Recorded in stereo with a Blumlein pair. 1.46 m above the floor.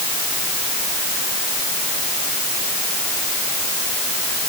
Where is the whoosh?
No whoosh in this recording.